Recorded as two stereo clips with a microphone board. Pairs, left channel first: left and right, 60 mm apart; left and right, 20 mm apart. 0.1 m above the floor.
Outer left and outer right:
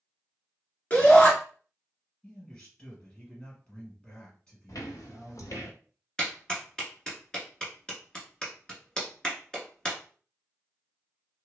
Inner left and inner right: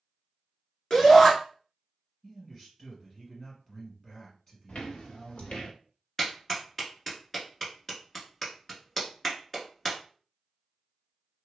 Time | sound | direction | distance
0.9 | a shout | 25° left (ahead or behind) | 1.2 m
2.2 | a man speaking | 20° left (ahead or behind) | 2.0 m
4.7 | footsteps | 85° left | 0.8 m
6.2 | a clap | 15° left (ahead or behind) | 1.1 m